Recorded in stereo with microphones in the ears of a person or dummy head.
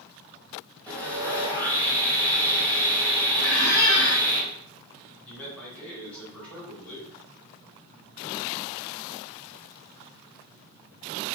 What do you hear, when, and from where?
0.9 s sawing: 10° left (ahead or behind), 1.6 m
3.4 s a squeak: 25° left (ahead or behind), 1.2 m
5.2 s a man speaking: 10° left (ahead or behind), 1.4 m